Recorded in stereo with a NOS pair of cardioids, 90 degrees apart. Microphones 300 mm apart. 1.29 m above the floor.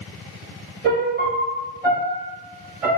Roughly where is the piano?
Ahead right.